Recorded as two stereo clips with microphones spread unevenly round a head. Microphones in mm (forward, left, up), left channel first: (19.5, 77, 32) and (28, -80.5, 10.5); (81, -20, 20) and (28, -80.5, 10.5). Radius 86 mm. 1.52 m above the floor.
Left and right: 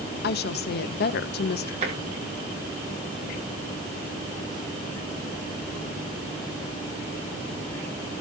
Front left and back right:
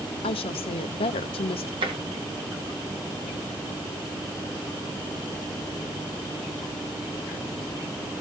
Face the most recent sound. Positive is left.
turn(degrees=-140)